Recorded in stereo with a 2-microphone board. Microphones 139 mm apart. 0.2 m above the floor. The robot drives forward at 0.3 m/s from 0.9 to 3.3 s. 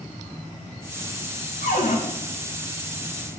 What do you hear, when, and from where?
1.6 s a cupboard door: 80° left, 4.5 m